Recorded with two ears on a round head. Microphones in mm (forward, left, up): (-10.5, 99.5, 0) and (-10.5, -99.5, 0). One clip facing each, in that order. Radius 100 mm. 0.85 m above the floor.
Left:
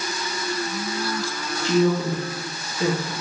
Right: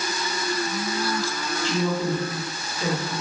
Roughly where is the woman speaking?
Left.